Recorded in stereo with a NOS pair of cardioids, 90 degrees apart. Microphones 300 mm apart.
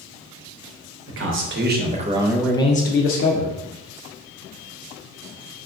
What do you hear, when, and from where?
1.1 s a man speaking: 45° right, 1.1 m; by 3.6 s 70° left, 0.8 m